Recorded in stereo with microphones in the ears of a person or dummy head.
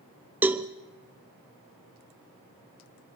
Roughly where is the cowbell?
Centre.